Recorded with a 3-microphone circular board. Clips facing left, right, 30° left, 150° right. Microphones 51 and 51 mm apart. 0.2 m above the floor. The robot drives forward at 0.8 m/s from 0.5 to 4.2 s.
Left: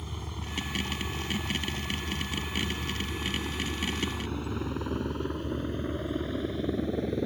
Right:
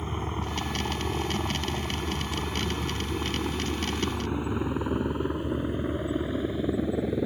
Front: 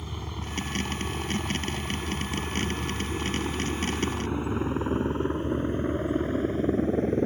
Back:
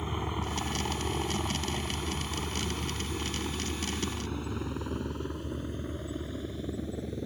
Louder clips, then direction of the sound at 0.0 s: Right 8 dB, back 4 dB; 105° right.